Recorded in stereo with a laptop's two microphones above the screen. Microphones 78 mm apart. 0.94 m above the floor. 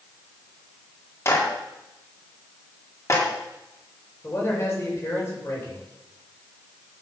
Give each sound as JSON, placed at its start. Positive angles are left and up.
{"t": 1.2, "sound": "a clap", "side_deg": 35, "distance_m": 1.9}
{"t": 4.2, "sound": "a man speaking", "side_deg": 35, "distance_m": 4.5}